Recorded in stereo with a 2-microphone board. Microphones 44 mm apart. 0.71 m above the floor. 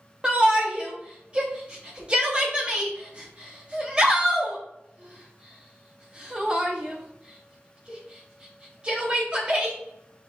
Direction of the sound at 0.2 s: 25° right (ahead or behind).